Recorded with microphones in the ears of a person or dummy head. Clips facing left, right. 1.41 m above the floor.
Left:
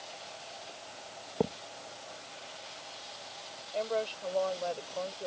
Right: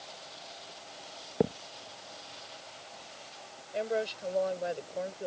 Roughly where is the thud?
Centre.